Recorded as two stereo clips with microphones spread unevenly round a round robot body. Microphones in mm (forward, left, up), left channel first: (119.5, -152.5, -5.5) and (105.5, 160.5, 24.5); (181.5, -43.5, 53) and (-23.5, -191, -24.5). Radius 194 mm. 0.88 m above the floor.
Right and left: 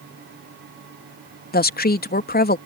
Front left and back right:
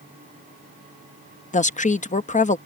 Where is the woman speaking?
35° right.